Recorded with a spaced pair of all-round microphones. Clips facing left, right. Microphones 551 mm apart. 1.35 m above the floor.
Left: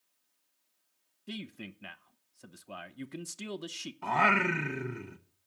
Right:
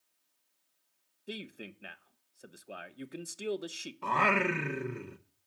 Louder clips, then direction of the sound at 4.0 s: Even; 10° left (ahead or behind).